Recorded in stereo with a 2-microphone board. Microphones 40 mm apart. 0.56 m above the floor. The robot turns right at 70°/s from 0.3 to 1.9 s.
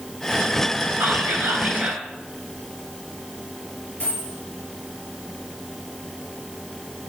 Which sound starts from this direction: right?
Whispering, at 1.0 s.